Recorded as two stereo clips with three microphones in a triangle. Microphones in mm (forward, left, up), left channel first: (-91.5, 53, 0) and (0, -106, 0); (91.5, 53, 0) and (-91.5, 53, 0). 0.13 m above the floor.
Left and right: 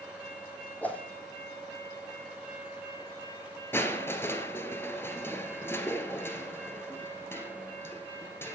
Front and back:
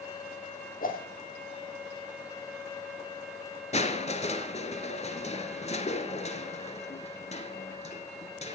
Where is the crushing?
45° left, 1.1 m.